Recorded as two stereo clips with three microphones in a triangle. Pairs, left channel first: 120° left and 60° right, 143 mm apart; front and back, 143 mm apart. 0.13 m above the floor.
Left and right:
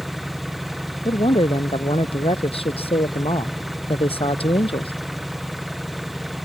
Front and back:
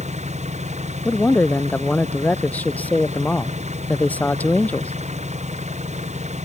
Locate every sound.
0.0 s an engine running: 150° right
1.1 s a man speaking: 80° left